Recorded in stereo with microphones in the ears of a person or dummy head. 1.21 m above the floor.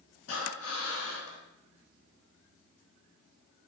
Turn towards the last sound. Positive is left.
turn(degrees=75)  # may be behind; listen again after turning